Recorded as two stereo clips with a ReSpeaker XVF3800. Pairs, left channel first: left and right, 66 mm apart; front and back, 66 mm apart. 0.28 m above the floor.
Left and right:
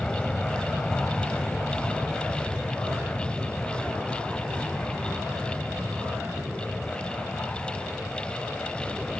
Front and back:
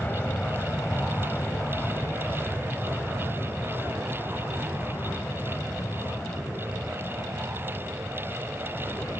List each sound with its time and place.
0.0 s an aircraft: 25° left; by 9.2 s 5° left